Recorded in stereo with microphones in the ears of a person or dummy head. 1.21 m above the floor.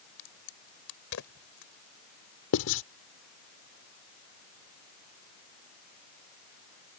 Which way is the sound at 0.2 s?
75° left (ahead or behind).